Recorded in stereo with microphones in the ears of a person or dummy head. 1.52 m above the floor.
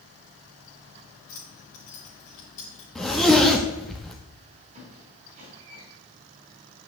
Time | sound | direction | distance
1.3 | keys jangling | 45° left (ahead or behind) | 3 m
3.0 | a zipper | centre (ahead or behind) | 1.4 m
4.8 | a squeak | 35° right (ahead or behind) | 3.5 m